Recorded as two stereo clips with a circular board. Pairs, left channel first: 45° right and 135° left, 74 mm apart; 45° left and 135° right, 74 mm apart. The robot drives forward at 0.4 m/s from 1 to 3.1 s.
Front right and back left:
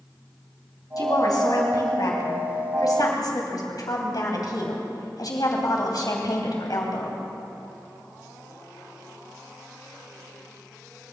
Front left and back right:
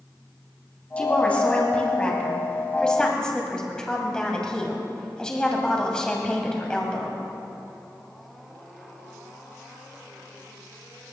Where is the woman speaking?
25° right, 3.5 m; by 7.2 s 35° right, 3 m.